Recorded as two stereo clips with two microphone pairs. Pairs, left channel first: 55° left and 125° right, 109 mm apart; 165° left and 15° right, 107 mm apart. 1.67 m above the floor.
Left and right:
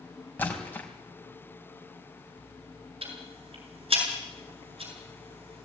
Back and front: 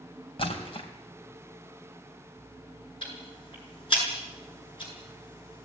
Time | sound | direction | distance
0.4 | a splash | 130° left | 3.5 m
3.0 | ticking | 155° right | 7.5 m